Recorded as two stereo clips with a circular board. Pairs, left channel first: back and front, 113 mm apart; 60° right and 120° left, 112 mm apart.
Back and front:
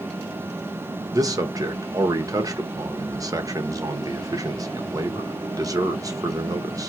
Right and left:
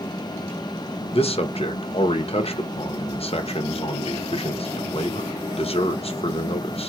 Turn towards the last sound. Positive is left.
turn(degrees=-55)